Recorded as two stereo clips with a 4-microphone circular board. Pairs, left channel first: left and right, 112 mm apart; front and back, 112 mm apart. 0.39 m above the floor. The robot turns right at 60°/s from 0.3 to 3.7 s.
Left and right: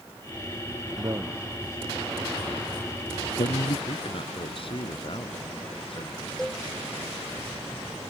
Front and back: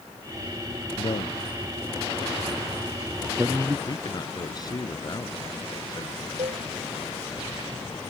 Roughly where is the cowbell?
Behind.